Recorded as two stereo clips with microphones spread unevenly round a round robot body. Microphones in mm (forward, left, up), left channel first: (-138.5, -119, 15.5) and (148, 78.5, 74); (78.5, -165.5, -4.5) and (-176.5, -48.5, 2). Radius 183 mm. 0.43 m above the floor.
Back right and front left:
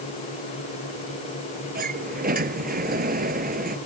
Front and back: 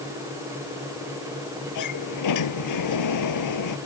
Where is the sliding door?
30° right.